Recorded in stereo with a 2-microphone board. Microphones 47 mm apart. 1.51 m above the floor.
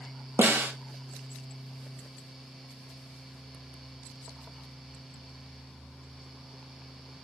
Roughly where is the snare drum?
Right.